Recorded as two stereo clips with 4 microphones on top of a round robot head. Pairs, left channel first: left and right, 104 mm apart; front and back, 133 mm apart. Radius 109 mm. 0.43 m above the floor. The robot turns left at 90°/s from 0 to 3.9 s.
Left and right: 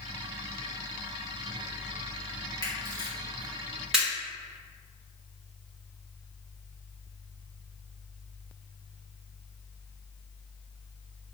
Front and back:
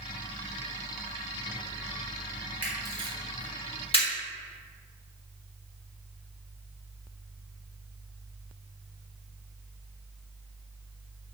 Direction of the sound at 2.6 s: 110° left.